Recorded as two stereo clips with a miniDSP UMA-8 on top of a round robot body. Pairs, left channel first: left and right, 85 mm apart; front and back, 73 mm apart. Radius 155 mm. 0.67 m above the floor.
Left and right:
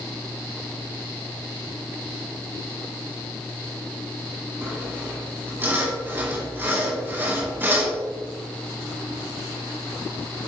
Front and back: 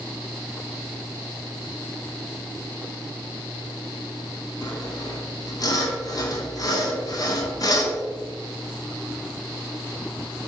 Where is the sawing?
25° right, 2 m.